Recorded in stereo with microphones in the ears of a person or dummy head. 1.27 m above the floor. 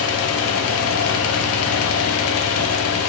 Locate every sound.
0.0 s a fan: 75° left (ahead or behind), 1.1 m